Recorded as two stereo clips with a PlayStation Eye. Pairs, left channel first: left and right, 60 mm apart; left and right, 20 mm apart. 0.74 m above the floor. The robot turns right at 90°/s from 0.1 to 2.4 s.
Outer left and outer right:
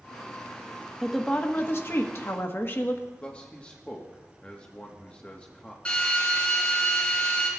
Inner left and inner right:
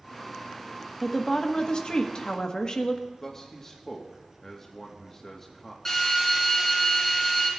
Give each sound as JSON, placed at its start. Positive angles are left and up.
{"t": 1.0, "sound": "a woman speaking", "azimuth_deg": -5, "distance_m": 0.9}
{"t": 3.2, "sound": "a man speaking", "side_deg": 20, "distance_m": 1.0}
{"t": 5.8, "sound": "a drill", "side_deg": 20, "distance_m": 4.0}